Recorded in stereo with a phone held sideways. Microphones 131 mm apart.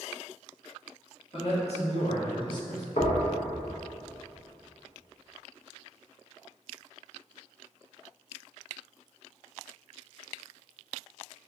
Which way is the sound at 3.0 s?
55° left (ahead or behind).